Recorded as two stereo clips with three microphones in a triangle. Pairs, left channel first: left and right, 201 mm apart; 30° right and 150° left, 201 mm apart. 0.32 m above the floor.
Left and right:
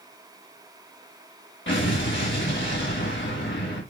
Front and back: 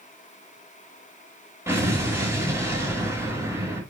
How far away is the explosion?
About 4 m.